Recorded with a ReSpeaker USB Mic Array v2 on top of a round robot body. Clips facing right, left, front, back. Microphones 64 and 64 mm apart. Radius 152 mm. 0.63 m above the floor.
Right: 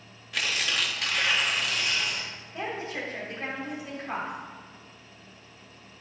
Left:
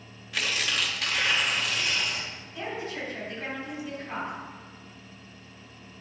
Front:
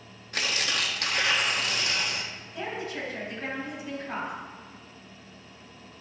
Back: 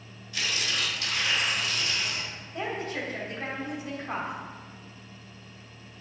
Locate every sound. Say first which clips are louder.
0.3 s tearing paper: even, front 2 dB; straight ahead, 1.5 m
2.5 s a woman speaking: right 1 dB, back 2 dB; 140° right, 3.5 m